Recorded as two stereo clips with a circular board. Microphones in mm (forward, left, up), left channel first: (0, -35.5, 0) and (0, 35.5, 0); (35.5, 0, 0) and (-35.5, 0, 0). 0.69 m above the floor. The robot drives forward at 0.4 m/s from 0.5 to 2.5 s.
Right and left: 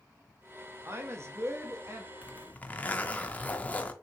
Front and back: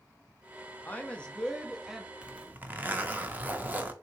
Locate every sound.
0.8 s a woman speaking: 55° left, 0.9 m; by 2.1 s 105° left, 0.8 m
2.2 s a zipper: 115° right, 0.5 m; by 3.9 s 135° right, 0.5 m